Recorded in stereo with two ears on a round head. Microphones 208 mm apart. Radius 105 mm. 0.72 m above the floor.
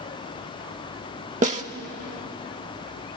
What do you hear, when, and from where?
1.4 s a snare drum: 30° right (ahead or behind), 0.9 m